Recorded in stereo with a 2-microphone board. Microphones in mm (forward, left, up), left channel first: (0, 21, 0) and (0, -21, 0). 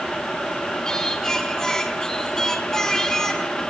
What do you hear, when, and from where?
0.8 s singing: 15° left (ahead or behind), 3.5 m